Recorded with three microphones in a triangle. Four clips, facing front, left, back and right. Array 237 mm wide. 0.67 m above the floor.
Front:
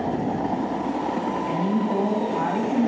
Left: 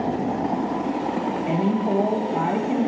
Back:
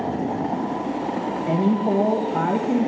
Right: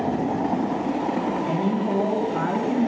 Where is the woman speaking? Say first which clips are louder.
Left 1 dB, back 6 dB; 165° left, 3.5 m.